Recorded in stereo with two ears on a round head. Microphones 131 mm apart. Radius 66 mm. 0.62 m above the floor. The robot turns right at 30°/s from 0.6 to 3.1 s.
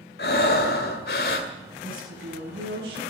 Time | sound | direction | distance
0.2 | breathing | 70° left (ahead or behind) | 2 m
1.8 | a woman speaking | 115° right | 7.5 m